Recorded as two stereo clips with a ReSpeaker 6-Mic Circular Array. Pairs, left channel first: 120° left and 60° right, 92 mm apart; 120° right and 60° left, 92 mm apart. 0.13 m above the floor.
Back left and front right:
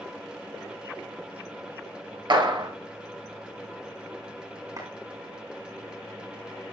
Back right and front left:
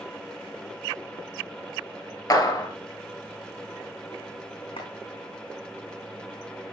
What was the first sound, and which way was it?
A clap, 75° right.